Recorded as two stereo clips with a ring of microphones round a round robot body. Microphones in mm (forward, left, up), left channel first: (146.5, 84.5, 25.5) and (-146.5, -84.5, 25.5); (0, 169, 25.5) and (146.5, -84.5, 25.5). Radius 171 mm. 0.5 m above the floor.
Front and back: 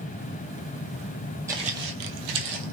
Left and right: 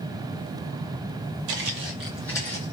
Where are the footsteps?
70° right, 0.7 m; by 2.7 s 175° right, 1.1 m.